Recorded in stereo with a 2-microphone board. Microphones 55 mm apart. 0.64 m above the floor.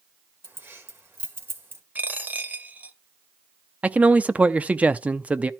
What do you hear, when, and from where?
0.4 s keys jangling: 40° right (ahead or behind), 1.6 m
1.9 s a dropped coin: 30° right (ahead or behind), 0.9 m
3.8 s a man speaking: 25° right (ahead or behind), 0.6 m